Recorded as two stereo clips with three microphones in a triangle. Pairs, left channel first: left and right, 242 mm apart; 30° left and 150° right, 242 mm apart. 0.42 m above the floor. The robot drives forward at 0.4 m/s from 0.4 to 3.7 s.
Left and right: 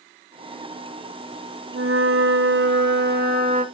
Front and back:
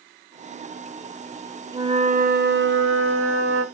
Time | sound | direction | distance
1.7 | a flute | 80° right | 0.6 m